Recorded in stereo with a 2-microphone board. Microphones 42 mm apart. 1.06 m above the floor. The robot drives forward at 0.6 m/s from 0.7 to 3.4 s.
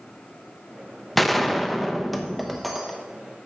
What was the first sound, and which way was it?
A gunshot, 5° left (ahead or behind).